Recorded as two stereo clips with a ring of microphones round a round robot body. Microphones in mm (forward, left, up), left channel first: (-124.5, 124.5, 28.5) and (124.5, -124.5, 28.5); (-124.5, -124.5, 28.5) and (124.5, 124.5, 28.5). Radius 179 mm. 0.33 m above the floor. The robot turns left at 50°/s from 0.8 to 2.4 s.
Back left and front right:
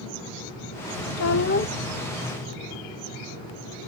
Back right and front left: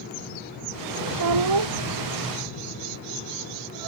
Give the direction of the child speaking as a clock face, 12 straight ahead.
9 o'clock.